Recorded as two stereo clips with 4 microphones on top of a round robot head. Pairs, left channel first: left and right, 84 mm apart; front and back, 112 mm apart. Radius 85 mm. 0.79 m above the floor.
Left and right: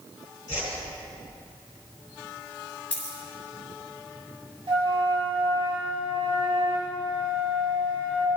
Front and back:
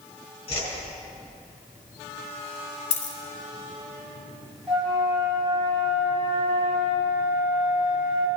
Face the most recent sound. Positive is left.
turn(degrees=-95)